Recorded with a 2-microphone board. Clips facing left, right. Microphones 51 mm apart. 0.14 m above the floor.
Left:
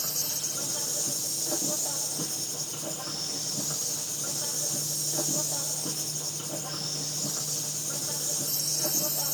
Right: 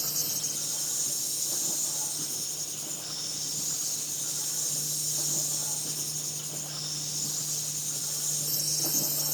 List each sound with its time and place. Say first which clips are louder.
0.0 s an insect: left 1 dB; 55° left (ahead or behind), 5 m